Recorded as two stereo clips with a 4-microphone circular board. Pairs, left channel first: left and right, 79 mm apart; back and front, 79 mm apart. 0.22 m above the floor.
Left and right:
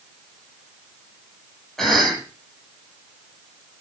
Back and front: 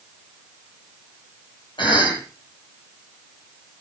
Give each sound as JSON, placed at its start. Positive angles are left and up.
{"t": 1.8, "sound": "a cough", "azimuth_deg": 175, "distance_m": 8.5}